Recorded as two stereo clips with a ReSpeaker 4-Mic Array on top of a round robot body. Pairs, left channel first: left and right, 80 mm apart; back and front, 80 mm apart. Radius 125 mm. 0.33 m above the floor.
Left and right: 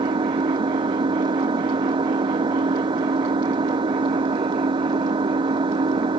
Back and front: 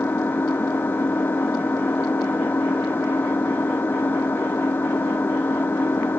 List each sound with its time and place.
0.0 s an engine running: 115° right